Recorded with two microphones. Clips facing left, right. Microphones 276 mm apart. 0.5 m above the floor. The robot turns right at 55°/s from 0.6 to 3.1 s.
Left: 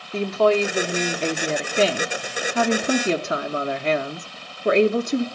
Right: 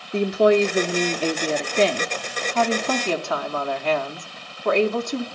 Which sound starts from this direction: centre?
A woman speaking, at 0.1 s.